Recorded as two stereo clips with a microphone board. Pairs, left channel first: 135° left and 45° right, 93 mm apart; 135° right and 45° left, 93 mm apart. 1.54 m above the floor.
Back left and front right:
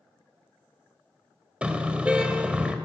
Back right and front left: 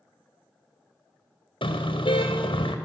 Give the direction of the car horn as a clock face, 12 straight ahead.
4 o'clock.